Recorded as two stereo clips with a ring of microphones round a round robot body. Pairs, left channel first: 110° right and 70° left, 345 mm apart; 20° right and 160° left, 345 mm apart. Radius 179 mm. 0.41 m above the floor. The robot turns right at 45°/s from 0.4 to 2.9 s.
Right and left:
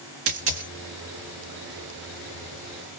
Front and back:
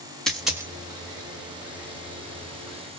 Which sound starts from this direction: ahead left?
A dropped coin, at 0.3 s.